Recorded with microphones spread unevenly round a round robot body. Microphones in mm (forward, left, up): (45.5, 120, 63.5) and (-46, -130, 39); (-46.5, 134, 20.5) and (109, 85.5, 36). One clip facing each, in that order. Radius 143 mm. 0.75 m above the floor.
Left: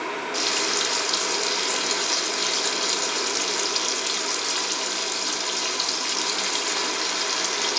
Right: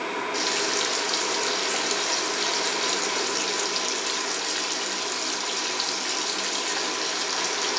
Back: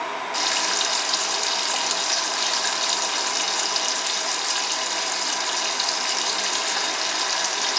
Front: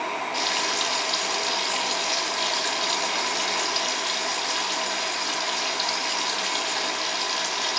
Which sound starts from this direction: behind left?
Frying, at 0.3 s.